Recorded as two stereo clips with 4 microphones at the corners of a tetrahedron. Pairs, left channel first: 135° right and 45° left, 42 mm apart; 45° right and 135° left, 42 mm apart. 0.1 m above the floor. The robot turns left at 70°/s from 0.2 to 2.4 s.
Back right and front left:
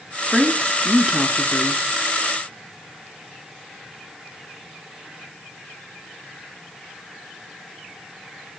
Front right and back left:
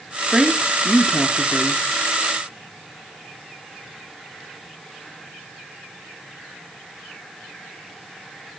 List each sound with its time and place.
0.3 s a woman speaking: 75° left, 1.2 m; by 1.8 s 35° right, 1.2 m